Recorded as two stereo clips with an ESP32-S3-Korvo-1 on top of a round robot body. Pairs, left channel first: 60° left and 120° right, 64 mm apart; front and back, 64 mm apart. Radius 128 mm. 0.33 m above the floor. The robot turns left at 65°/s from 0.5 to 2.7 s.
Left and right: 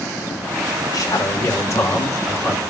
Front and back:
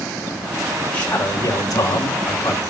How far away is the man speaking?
About 4.5 m.